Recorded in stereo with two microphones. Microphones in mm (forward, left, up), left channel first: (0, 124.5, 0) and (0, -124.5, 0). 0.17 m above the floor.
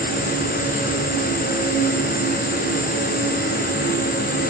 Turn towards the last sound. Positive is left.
turn(degrees=65)  # may be behind; listen again after turning